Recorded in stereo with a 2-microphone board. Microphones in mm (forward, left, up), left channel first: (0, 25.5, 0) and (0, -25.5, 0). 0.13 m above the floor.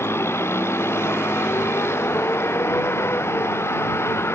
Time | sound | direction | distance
0.0 | a vehicle | 55° left (ahead or behind) | ?